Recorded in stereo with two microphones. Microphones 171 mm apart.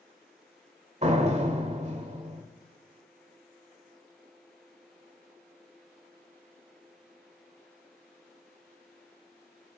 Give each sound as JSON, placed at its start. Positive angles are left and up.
{"t": 1.0, "sound": "a door slam", "side_deg": -40, "distance_m": 1.8}